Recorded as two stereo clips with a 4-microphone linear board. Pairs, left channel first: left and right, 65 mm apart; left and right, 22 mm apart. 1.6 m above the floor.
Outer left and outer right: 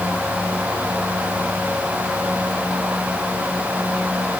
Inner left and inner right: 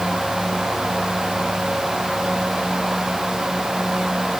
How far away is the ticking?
No ticking in this recording.